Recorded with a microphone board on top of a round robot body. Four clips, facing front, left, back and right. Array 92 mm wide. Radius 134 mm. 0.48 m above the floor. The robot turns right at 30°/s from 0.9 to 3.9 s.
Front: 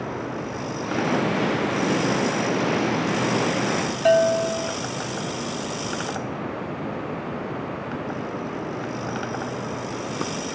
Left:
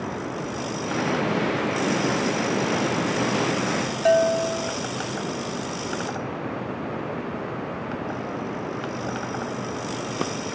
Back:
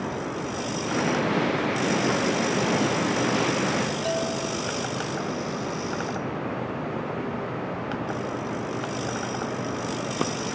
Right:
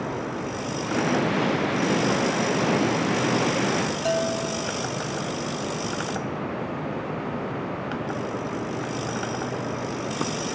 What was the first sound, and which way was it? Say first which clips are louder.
A bell: left 10 dB, front 9 dB; 35° left.